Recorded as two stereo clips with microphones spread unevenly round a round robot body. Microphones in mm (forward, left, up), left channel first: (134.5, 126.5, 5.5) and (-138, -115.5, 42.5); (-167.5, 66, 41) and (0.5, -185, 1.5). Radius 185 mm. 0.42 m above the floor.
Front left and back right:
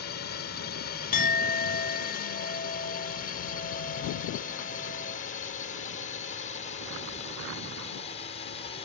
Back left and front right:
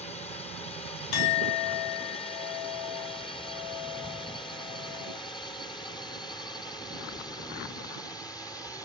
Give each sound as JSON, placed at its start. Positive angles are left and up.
{"t": 0.0, "sound": "a drone", "azimuth_deg": 55}
{"t": 1.1, "sound": "a clink", "azimuth_deg": 110}